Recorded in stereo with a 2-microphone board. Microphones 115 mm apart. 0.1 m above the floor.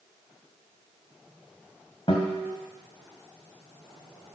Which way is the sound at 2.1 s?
45° left (ahead or behind).